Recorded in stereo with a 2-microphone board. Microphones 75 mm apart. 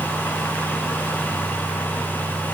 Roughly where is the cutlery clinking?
I don't hear cutlery clinking.